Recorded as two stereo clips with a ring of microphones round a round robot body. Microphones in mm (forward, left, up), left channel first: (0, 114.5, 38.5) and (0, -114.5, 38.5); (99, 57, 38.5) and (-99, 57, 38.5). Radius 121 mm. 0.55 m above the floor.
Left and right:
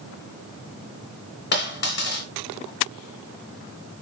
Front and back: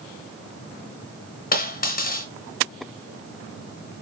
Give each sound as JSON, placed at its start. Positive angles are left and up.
{"t": 1.5, "sound": "a dropped coin", "azimuth_deg": 45, "distance_m": 2.5}